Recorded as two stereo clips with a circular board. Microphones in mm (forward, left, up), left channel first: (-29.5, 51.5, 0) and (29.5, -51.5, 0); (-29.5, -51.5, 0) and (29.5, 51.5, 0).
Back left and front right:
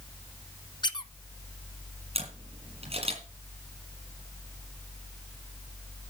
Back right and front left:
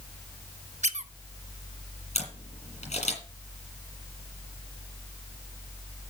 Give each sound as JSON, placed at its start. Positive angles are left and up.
{"t": 0.8, "sound": "a squeak", "azimuth_deg": 70, "distance_m": 0.7}
{"t": 2.1, "sound": "a camera shutter", "azimuth_deg": -95, "distance_m": 6.0}